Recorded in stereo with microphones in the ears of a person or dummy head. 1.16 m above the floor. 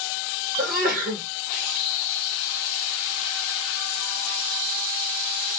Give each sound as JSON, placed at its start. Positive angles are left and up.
{"t": 0.6, "sound": "a sneeze", "side_deg": -50, "distance_m": 1.5}